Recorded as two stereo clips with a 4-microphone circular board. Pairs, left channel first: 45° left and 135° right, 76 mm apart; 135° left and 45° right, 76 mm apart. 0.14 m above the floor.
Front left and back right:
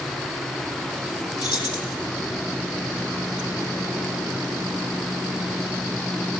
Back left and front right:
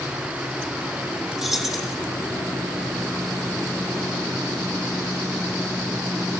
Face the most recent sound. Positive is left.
turn(degrees=40)